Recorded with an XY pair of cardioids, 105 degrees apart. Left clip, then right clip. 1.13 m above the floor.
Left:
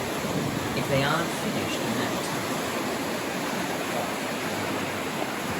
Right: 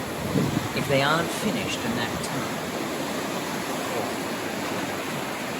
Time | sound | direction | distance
0.8 | a man speaking | 25° right | 1.2 m